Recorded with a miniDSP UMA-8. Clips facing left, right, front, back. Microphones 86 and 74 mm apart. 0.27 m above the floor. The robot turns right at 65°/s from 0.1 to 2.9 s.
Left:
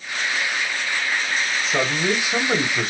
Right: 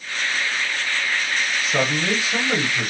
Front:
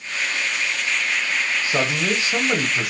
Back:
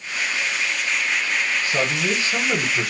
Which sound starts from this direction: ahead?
A man speaking, at 1.6 s.